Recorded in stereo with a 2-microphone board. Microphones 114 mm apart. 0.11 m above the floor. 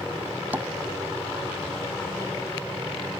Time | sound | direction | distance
0.5 | tapping | 15° right (ahead or behind) | ?